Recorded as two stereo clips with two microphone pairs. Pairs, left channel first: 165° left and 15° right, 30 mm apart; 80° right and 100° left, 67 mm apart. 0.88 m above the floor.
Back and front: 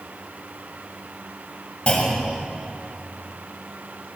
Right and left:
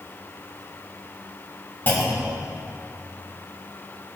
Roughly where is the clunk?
Behind right.